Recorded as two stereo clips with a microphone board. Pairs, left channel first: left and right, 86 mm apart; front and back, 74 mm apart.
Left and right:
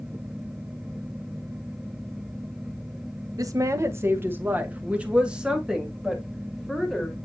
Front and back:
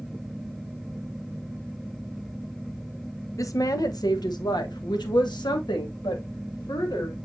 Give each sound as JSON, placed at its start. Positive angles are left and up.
{"t": 3.4, "sound": "a woman speaking", "azimuth_deg": -45, "distance_m": 1.0}